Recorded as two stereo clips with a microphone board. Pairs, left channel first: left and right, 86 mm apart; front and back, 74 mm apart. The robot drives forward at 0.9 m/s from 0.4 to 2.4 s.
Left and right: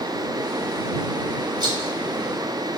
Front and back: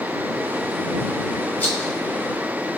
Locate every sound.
1.6 s a rattle: 60° right, 2 m; by 2.0 s 70° right, 2 m